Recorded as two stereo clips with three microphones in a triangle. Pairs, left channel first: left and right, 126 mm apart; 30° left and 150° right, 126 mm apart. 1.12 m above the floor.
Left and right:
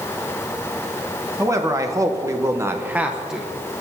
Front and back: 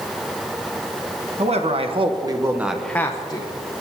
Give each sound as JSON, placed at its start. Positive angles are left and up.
{"t": 1.4, "sound": "a man speaking", "azimuth_deg": -150, "distance_m": 1.2}